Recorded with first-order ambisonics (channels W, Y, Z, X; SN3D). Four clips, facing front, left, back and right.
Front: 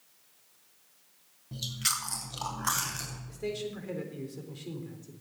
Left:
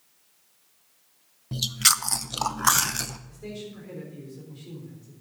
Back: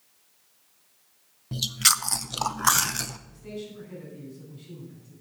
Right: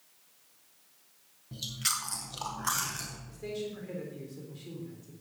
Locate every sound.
1.5 s chewing: 130° left, 0.7 m
3.3 s a man speaking: straight ahead, 3.5 m